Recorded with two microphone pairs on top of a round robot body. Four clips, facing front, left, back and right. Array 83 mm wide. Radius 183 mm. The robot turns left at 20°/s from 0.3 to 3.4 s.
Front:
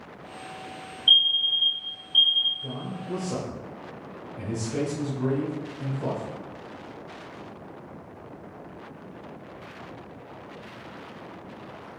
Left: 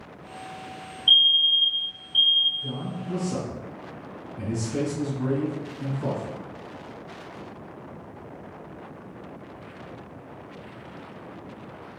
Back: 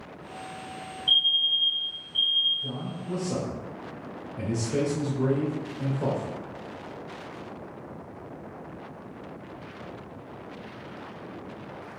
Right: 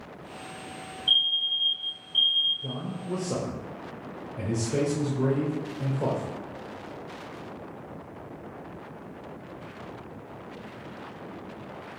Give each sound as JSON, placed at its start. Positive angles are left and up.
{"t": 1.1, "sound": "a fire alarm", "azimuth_deg": 25, "distance_m": 2.5}
{"t": 2.6, "sound": "a man speaking", "azimuth_deg": -90, "distance_m": 1.7}